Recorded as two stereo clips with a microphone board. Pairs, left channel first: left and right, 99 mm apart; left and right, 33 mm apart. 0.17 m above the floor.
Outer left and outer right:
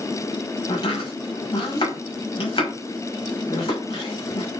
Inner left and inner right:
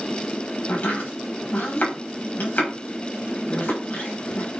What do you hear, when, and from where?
0.7 s chopping: 60° left (ahead or behind), 5 m